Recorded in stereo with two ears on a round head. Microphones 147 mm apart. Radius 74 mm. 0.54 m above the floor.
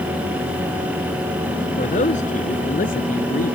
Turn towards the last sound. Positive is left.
turn(degrees=60)  # may be behind; listen again after turning